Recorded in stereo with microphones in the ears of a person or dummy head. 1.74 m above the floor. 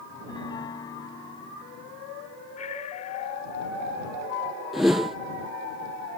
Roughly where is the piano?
Left.